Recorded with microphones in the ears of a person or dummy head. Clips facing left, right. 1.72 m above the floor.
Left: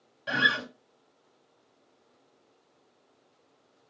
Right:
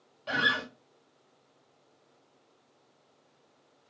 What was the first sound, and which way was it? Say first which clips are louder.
A guitar: left 1 dB; 15° left (ahead or behind).